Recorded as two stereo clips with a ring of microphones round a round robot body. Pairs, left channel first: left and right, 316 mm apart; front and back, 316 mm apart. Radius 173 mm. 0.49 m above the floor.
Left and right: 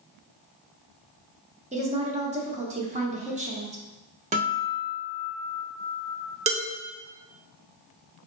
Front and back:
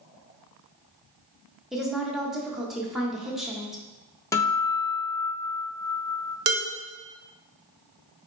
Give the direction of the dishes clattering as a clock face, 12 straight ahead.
5 o'clock.